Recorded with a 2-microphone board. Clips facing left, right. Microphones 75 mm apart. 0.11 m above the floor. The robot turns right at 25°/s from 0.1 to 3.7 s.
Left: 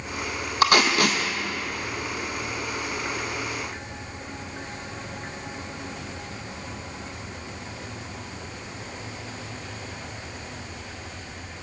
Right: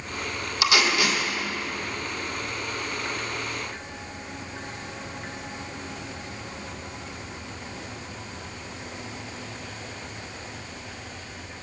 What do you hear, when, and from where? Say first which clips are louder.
0.6 s tape being pulled: left 3 dB; 45° left (ahead or behind), 1.0 m; by 1.2 s 60° left (ahead or behind), 1.0 m